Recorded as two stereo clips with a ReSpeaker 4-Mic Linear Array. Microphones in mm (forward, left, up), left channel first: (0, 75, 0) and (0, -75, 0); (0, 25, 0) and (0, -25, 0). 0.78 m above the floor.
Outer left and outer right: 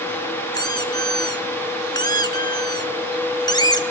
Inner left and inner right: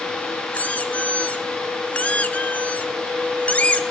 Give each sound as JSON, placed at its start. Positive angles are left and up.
{"t": 0.5, "sound": "a squeak", "side_deg": 30, "distance_m": 1.3}